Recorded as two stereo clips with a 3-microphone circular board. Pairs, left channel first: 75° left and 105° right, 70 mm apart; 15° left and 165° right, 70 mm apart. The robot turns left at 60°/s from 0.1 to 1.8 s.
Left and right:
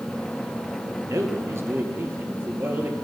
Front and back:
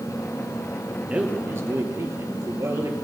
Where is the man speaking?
100° right, 2 m; by 2.9 s 145° right, 2 m.